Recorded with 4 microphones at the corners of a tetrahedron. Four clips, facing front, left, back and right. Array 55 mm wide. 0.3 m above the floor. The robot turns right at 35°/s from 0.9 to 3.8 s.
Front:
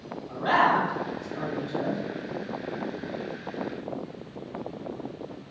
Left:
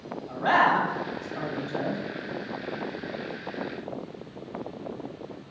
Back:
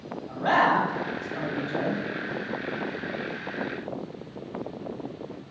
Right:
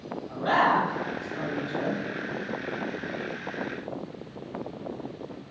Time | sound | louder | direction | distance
0.3 | a man speaking | left 1 dB, even | 95° left | 1.6 m